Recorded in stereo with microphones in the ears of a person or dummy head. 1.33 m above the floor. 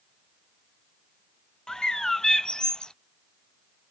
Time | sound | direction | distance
1.7 | a bird | 5° left (ahead or behind) | ?